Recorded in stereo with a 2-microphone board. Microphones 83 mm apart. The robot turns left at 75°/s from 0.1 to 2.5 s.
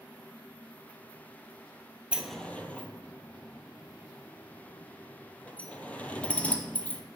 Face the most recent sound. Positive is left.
turn(degrees=15)  # may be behind; listen again after turning